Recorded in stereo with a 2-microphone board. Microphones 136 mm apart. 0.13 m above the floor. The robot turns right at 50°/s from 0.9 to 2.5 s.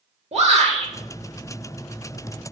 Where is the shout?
55° right (ahead or behind), 2.5 m.